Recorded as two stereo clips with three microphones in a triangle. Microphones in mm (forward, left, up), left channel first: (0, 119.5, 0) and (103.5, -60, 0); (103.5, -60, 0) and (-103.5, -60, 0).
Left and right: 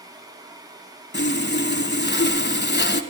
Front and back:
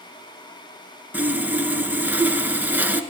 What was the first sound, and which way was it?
Sawing, 100° left.